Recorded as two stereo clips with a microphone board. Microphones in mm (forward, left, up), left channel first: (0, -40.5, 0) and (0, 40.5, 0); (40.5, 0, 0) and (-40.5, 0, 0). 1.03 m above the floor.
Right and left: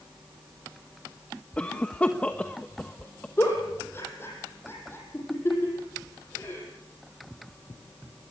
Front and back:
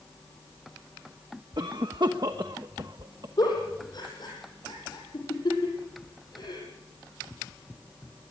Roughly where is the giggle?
Ahead right.